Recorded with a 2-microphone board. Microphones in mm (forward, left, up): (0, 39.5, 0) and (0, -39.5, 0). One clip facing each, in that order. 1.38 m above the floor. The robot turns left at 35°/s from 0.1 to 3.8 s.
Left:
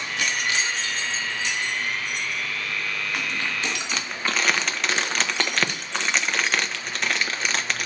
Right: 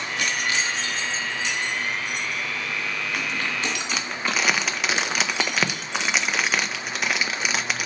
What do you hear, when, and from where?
3.9 s crumpling: 5° right (ahead or behind), 0.6 m